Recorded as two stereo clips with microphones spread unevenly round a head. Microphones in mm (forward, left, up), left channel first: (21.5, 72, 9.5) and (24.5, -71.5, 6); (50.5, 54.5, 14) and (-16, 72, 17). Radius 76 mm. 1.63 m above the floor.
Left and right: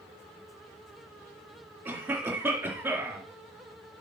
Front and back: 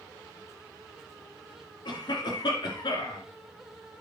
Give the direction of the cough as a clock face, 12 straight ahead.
12 o'clock.